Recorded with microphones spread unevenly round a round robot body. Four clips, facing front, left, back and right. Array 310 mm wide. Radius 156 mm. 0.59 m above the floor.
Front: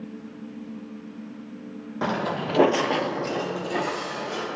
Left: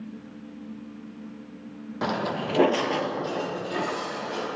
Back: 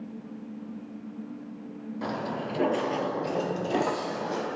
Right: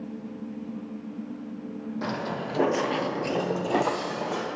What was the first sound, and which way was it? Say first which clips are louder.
Footsteps: left 5 dB, front 6 dB; 40° left.